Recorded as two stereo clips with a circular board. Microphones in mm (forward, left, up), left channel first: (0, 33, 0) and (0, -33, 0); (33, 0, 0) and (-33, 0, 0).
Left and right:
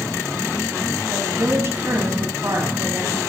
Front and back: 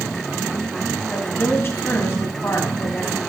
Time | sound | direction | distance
1.1 | a woman speaking | 50° right | 3.5 m